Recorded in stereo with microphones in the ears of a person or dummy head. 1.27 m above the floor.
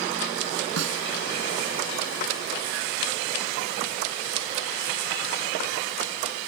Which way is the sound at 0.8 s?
70° right (ahead or behind).